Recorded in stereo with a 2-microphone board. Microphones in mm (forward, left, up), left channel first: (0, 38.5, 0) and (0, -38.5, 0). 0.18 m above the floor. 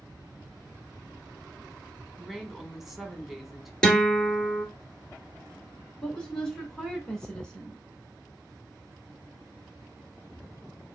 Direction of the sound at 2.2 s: 5° right (ahead or behind).